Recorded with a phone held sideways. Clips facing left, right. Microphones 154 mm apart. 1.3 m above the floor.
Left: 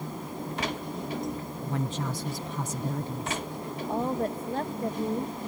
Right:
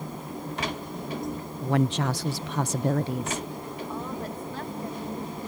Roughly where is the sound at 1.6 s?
Right.